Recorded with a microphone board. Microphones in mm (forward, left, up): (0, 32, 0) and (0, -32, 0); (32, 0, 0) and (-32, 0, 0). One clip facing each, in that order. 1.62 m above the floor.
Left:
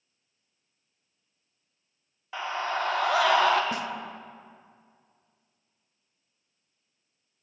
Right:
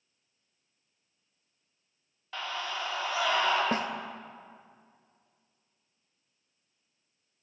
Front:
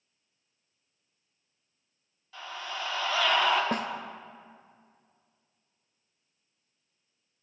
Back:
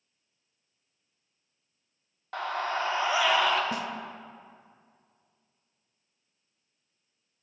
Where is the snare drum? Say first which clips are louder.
Right 2 dB, front 2 dB; 35° right, 0.6 m.